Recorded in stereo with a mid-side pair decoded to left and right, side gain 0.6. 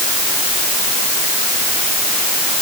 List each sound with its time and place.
Only background noise.